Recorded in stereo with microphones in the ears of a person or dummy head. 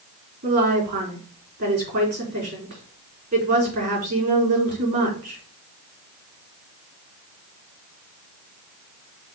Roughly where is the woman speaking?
Right.